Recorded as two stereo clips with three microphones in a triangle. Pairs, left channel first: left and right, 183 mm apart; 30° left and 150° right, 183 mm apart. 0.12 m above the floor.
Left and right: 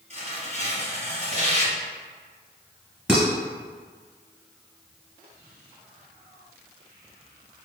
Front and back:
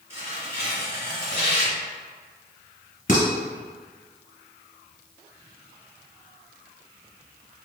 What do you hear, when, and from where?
0.1 s tearing paper: 85° right, 1.9 m
3.1 s dishes clattering: 5° right, 1.8 m